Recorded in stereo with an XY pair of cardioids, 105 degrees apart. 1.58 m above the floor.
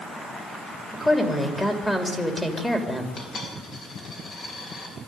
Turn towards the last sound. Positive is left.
turn(degrees=50)